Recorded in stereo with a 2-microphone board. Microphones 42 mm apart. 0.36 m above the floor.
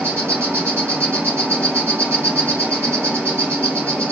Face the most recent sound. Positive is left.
turn(degrees=-70)  # may be behind; listen again after turning